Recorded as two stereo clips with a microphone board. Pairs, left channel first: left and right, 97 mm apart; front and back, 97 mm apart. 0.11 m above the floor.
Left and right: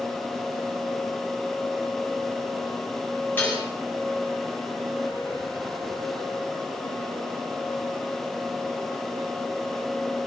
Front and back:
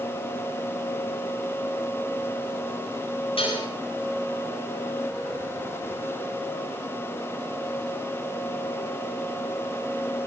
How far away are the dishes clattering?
About 7.5 m.